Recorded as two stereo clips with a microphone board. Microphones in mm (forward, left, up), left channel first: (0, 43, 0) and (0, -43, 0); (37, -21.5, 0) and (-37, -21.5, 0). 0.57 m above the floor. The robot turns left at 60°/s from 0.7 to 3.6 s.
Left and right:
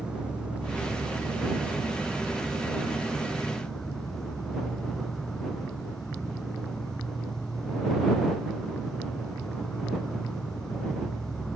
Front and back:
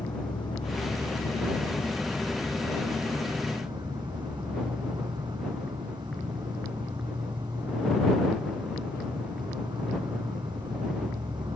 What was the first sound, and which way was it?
An insect, 10° right.